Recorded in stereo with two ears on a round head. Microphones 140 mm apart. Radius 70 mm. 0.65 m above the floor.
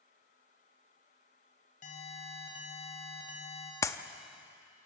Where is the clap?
20° left (ahead or behind), 0.7 m.